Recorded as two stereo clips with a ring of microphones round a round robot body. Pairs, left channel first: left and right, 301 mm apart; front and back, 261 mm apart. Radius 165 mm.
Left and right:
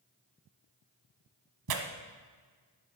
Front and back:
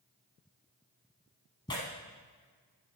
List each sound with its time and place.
1.7 s tearing paper: 75° right, 1.0 m